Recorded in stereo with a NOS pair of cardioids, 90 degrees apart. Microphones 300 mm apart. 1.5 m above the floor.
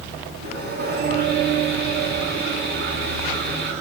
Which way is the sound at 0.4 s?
35° right.